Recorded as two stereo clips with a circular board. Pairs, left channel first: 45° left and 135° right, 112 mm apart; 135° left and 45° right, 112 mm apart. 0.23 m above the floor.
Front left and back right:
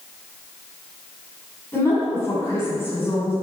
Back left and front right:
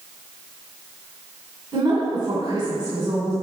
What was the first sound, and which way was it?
A woman speaking, 15° right.